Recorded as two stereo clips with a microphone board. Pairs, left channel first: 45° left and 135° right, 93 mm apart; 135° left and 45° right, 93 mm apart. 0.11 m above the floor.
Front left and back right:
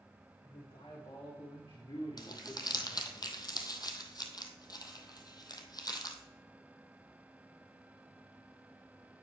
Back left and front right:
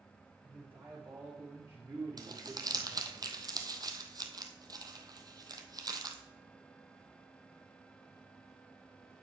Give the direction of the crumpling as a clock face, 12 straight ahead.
12 o'clock.